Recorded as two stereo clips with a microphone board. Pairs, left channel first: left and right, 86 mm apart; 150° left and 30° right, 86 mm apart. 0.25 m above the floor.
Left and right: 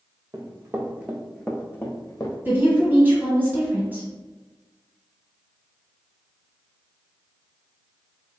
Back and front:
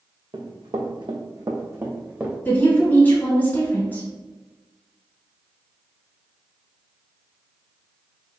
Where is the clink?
No clink in this recording.